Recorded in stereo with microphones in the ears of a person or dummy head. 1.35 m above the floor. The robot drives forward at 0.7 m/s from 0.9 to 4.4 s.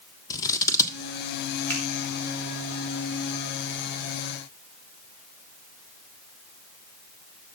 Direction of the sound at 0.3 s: 20° left (ahead or behind).